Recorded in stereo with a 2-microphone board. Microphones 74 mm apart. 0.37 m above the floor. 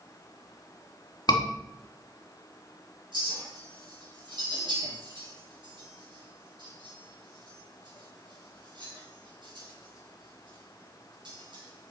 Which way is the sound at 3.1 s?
80° right.